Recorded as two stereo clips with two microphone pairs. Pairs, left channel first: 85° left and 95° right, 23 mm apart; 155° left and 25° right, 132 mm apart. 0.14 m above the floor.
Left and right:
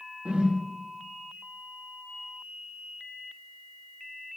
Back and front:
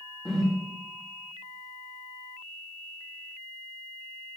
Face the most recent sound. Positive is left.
turn(degrees=-120)